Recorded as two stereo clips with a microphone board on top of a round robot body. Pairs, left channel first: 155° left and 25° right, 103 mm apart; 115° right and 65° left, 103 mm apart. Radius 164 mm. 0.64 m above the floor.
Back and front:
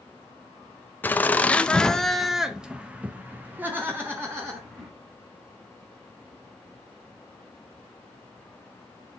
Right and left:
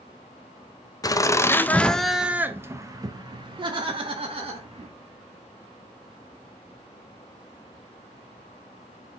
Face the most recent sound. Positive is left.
turn(degrees=45)